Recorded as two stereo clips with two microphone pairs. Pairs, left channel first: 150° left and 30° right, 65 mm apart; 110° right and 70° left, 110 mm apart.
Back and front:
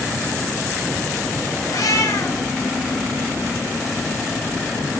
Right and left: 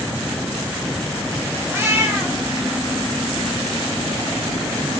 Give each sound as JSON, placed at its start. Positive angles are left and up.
{"t": 1.7, "sound": "a cat meowing", "azimuth_deg": 140, "distance_m": 2.5}